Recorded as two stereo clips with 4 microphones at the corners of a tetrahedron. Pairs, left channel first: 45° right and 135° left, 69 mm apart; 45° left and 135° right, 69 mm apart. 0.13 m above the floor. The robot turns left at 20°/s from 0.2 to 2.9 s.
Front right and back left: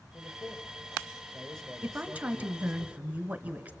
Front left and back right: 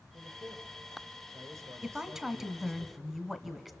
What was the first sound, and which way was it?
A man speaking, 100° right.